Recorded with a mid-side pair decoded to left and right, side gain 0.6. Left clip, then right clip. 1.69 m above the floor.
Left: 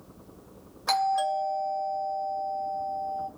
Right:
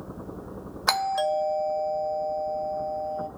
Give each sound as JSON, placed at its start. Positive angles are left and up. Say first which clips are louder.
{"t": 0.9, "sound": "a doorbell", "louder": "right 1 dB", "azimuth_deg": -45, "distance_m": 0.9}